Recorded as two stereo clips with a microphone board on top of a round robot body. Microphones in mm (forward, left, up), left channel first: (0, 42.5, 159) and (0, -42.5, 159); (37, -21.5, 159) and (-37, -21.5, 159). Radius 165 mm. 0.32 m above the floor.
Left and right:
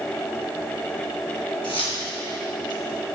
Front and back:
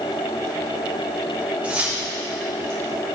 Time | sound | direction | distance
1.6 | keys jangling | 105° left | 3 m